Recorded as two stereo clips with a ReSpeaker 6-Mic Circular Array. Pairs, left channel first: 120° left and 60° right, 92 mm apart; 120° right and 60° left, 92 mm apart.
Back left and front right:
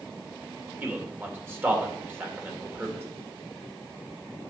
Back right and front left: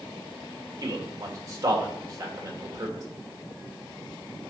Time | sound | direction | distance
0.8 | a man speaking | 5° left | 2 m